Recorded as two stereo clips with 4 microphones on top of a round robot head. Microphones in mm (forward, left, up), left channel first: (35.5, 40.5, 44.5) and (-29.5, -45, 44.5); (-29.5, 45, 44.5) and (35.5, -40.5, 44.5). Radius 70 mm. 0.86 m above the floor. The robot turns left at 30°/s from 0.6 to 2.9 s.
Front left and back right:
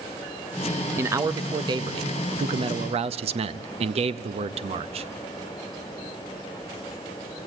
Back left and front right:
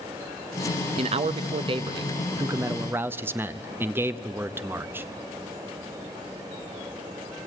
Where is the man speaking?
60° right, 0.6 m; by 5.0 s 120° right, 0.6 m.